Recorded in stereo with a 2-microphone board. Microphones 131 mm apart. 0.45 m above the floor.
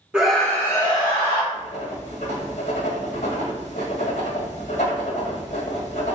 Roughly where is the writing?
Left.